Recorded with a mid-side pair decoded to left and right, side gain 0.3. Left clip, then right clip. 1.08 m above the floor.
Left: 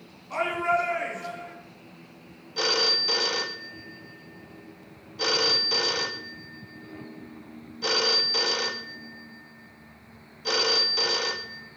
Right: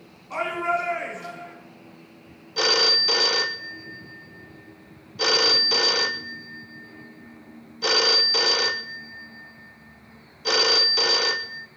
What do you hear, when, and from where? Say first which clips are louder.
0.3 s a shout: even; 25° right, 6 m
2.6 s a phone ringing: right 4 dB; 50° right, 0.8 m